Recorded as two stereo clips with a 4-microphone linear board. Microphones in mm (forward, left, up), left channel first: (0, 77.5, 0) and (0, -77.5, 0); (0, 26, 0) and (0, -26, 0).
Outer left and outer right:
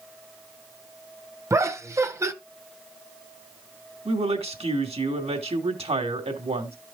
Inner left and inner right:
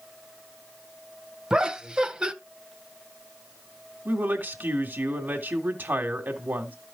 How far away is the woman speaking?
About 2 m.